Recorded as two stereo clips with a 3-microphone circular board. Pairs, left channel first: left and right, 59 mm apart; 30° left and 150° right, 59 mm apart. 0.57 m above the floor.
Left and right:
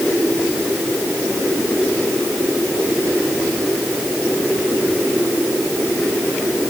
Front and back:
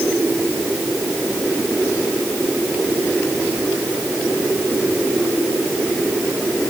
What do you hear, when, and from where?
Only background noise.